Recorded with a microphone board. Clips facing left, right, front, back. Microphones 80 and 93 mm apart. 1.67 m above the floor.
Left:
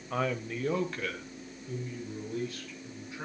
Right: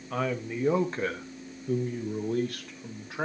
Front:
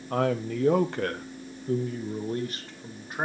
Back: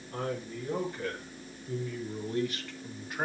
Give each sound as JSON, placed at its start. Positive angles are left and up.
{"t": 0.1, "sound": "a man speaking", "azimuth_deg": 5, "distance_m": 1.2}